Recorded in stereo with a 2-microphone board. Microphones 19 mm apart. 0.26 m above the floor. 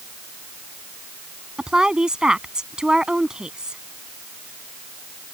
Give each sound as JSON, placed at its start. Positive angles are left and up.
{"t": 1.6, "sound": "a woman speaking", "side_deg": -50}